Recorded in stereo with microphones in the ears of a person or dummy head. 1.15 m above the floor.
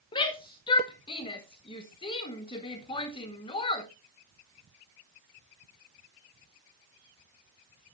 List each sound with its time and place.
0.1 s a shout: 25° left (ahead or behind), 1.6 m